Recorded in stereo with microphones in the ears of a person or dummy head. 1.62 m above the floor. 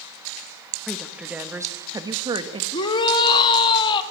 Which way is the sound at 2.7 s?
30° left (ahead or behind).